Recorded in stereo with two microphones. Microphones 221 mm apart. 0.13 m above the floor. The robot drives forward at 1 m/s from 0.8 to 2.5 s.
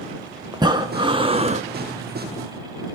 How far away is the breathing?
About 1.8 m.